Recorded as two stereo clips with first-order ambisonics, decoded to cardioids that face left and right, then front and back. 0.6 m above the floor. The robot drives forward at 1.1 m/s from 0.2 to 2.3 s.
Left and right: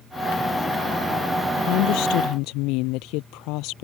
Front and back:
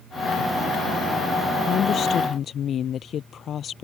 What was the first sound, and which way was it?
A woman speaking, 60° left.